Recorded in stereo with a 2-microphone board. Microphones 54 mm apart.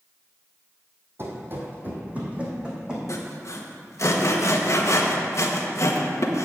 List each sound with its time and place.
1.2 s running footsteps: 45° right (ahead or behind), 1.9 m; by 3.0 s 15° right (ahead or behind), 2.5 m
3.1 s sawing: 60° left (ahead or behind), 1.1 m